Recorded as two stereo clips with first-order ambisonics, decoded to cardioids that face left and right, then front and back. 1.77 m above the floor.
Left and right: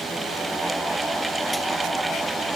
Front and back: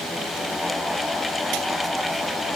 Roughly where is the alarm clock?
I don't hear an alarm clock.